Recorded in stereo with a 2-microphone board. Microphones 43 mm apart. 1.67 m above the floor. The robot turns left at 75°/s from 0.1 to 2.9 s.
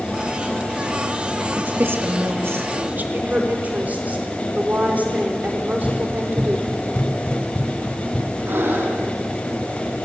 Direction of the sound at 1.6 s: 35° right (ahead or behind).